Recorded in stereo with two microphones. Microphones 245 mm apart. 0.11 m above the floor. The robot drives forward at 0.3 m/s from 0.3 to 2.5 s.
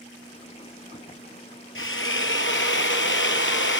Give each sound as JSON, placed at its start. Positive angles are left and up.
{"t": 1.8, "sound": "a drill", "side_deg": 60, "distance_m": 1.2}